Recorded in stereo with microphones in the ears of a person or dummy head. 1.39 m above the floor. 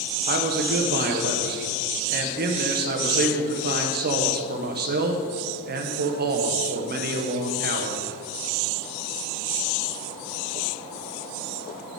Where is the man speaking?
50° right (ahead or behind), 1.1 m.